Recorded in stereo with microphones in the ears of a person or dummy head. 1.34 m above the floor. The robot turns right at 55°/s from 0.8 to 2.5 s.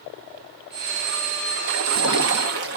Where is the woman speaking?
No woman speaking in this recording.